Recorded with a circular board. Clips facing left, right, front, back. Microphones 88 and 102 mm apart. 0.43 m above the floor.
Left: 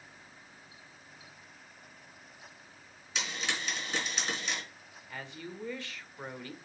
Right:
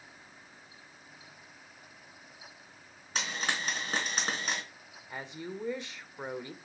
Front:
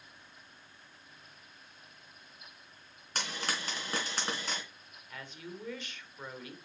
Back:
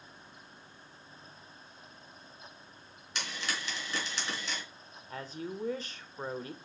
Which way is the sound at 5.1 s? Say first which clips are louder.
Right 3 dB, back 6 dB; 150° right.